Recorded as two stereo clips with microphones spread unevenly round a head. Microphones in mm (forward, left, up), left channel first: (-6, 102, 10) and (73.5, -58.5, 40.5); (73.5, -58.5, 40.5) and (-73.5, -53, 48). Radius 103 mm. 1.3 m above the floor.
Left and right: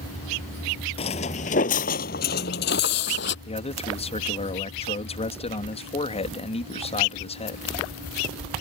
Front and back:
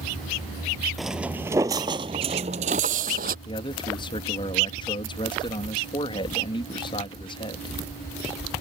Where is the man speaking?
60° left.